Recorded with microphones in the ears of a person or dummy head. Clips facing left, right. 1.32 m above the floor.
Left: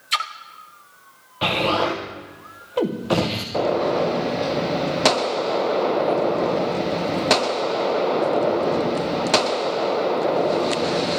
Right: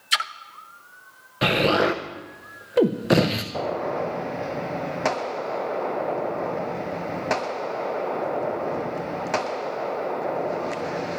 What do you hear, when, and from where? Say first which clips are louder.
0.1 s a splash: left 2 dB; 15° right (ahead or behind), 0.5 m
1.4 s an explosion: right 1 dB; 25° right (ahead or behind), 0.9 m
3.5 s a gunshot: left 9 dB; 50° left (ahead or behind), 0.6 m